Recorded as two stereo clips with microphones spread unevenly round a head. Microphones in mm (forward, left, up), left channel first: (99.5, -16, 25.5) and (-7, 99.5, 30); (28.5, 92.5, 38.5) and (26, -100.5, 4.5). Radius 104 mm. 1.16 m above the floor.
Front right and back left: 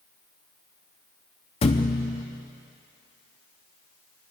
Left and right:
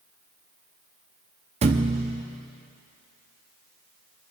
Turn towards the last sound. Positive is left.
turn(degrees=-40)